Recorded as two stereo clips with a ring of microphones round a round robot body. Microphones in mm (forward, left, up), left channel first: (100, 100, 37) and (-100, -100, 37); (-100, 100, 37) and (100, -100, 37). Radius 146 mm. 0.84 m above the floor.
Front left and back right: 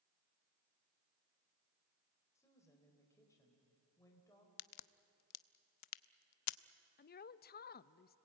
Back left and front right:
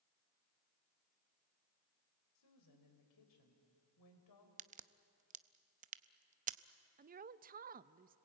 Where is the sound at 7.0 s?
5° left, 0.5 m.